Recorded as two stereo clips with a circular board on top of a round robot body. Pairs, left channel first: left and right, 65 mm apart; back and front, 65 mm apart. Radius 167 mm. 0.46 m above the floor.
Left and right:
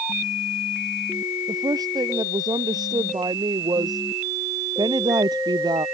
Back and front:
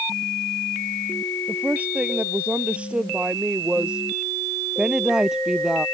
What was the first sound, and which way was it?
A woman speaking, 70° right.